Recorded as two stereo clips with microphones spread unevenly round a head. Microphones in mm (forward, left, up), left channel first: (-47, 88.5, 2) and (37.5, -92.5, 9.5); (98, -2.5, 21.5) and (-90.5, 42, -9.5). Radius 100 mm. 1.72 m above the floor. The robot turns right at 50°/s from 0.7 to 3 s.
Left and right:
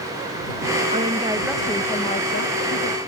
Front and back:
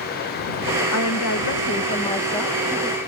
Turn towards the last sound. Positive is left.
turn(degrees=95)